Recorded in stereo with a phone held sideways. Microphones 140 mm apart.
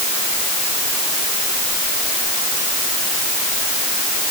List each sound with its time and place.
Only background noise.